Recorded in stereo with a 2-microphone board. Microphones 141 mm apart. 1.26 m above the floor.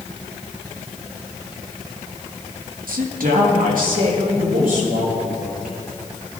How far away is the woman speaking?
About 0.9 m.